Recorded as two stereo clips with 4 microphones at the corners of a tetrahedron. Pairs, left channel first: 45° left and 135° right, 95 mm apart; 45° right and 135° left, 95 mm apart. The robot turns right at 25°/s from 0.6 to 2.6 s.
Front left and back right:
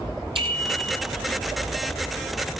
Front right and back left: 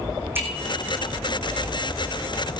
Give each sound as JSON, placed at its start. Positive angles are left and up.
{"t": 0.3, "sound": "a bicycle bell", "azimuth_deg": -160, "distance_m": 3.5}